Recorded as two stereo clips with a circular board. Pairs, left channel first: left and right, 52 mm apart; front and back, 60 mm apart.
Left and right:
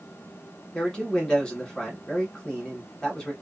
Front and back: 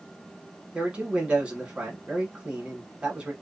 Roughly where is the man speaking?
Behind left.